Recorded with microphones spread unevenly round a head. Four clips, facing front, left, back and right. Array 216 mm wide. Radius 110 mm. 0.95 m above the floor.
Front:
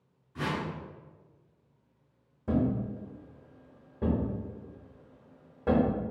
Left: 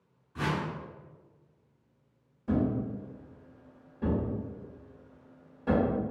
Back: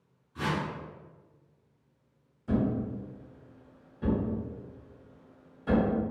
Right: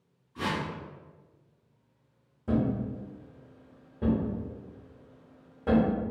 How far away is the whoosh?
About 0.9 m.